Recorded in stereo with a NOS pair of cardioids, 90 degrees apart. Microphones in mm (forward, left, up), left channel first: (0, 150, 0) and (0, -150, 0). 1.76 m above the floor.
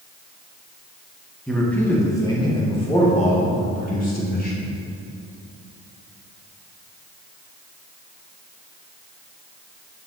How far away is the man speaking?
About 1.8 m.